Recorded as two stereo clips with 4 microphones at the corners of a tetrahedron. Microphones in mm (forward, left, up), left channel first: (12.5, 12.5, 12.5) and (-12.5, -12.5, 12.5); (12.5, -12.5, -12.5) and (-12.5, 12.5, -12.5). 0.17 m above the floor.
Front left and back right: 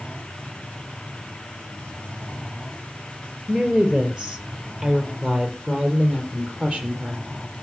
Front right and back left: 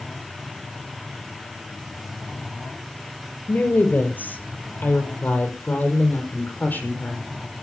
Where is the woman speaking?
70° right, 4 m; by 7.3 s 80° right, 6.5 m.